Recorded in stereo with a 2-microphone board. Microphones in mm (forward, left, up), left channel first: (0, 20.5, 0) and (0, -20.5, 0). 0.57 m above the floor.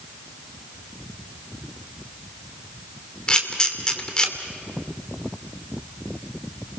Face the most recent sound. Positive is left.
turn(degrees=20)  # may be behind; listen again after turning